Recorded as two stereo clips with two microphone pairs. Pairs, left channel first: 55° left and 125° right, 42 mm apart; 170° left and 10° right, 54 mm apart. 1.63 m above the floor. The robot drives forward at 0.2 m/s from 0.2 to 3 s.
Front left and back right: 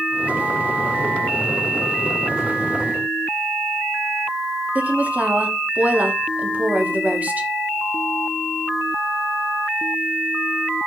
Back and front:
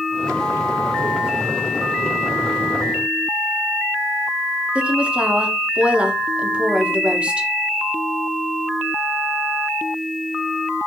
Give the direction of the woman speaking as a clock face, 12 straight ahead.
3 o'clock.